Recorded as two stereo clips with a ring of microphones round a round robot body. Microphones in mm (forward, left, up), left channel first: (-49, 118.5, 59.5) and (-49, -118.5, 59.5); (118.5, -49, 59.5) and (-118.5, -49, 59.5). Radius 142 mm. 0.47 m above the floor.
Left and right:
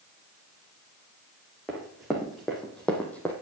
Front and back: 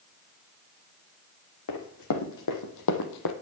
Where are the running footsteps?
Straight ahead, 1.8 m; by 3.3 s 5° left, 1.0 m.